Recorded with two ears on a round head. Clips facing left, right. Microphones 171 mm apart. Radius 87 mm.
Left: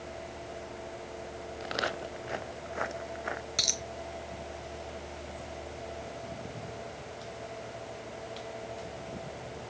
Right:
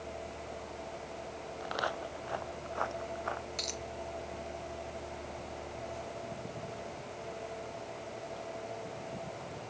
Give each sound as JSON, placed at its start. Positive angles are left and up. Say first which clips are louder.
{"t": 1.6, "sound": "footsteps", "louder": "left 2 dB", "side_deg": 25}
{"t": 3.6, "sound": "a dropped coin", "louder": "left 1 dB", "side_deg": 70}